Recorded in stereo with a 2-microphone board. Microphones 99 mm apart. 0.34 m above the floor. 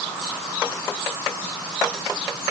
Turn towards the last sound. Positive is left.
No sound to turn to.